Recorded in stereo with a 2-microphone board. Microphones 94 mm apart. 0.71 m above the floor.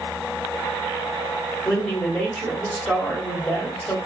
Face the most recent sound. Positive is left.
turn(degrees=10)  # may be behind; listen again after turning